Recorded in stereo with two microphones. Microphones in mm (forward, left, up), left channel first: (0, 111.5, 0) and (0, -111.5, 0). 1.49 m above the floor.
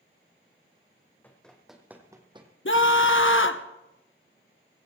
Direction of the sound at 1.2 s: 10° left (ahead or behind).